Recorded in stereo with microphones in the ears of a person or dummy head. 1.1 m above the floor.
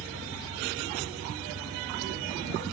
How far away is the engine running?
About 2.5 m.